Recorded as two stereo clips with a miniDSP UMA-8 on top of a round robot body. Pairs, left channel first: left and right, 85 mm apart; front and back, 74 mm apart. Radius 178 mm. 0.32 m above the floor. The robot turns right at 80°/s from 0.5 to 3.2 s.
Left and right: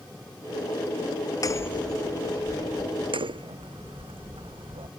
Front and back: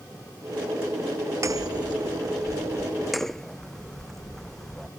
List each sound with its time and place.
1.4 s hammering: 135° left; by 4.9 s 85° right